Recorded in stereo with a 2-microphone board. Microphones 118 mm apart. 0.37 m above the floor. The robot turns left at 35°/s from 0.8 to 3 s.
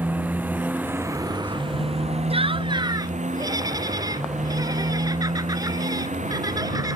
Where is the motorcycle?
15° right; by 7.0 s 90° right.